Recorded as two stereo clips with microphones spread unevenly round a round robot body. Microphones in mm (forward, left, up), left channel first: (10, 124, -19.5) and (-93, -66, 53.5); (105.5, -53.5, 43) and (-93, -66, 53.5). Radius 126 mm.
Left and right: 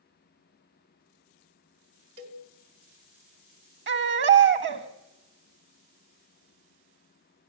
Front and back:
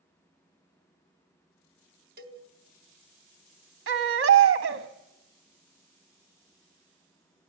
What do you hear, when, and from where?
2.2 s a cowbell: 140° right, 3 m
3.9 s a baby crying: 160° right, 1.6 m